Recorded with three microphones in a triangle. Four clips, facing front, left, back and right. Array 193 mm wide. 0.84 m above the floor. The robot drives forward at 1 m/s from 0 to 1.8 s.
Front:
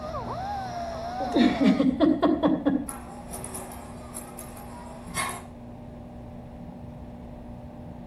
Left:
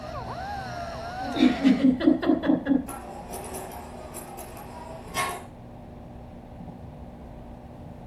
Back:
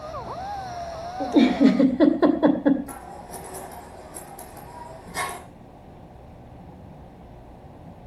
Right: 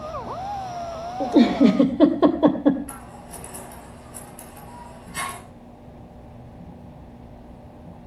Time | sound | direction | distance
1.2 | a giggle | 110° right | 2.0 m
2.9 | scissors | 130° left | 5.5 m